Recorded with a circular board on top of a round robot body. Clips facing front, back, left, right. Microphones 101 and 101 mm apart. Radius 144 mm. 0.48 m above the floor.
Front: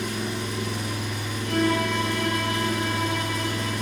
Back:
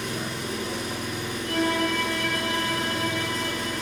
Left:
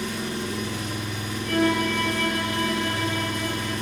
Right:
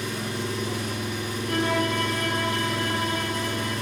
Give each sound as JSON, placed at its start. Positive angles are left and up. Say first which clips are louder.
{"t": 0.0, "sound": "an engine running", "louder": "front 2 dB, left 1 dB", "azimuth_deg": -140, "distance_m": 1.5}
{"t": 1.4, "sound": "a violin", "louder": "front 2 dB, left 3 dB", "azimuth_deg": -30, "distance_m": 1.4}